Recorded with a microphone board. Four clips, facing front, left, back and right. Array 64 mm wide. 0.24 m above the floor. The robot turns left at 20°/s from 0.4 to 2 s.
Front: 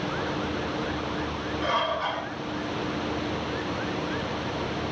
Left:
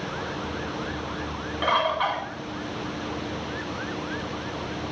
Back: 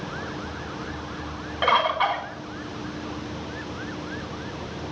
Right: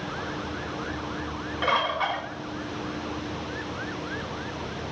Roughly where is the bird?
Behind.